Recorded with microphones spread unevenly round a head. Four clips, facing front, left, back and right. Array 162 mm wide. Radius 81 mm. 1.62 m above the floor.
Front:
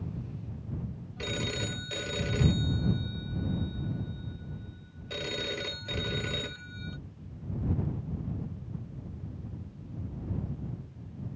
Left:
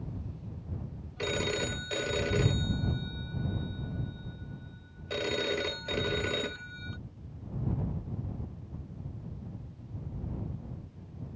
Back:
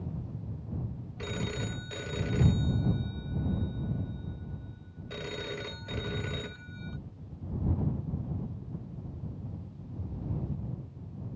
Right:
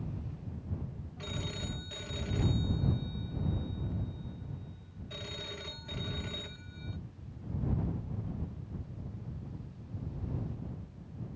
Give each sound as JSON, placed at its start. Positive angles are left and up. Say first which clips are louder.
{"t": 1.2, "sound": "a phone ringing", "louder": "left 10 dB, front 1 dB", "azimuth_deg": 75}